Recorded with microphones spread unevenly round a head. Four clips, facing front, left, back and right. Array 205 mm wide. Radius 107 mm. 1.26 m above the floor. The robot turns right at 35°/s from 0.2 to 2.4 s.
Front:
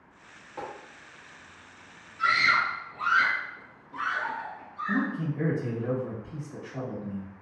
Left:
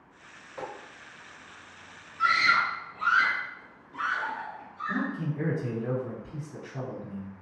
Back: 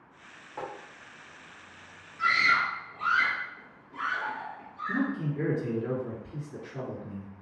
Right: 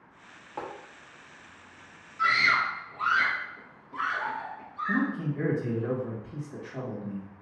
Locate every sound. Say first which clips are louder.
0.6 s tapping: right 1 dB, even; 100° right, 0.7 m; by 0.7 s 95° right, 0.7 m
2.2 s a scream: left 1 dB, front 1 dB; 80° right, 1.0 m; by 5.1 s 70° right, 1.0 m
4.9 s a man speaking: right 3 dB, front 1 dB; 55° right, 1.7 m